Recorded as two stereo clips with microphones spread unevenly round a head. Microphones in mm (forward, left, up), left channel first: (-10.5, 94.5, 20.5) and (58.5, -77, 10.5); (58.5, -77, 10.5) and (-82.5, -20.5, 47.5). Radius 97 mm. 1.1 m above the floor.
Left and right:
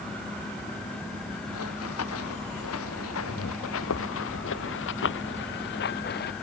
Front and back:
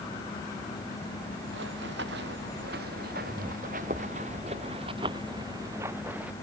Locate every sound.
1.5 s running footsteps: 130° left; by 6.3 s 80° left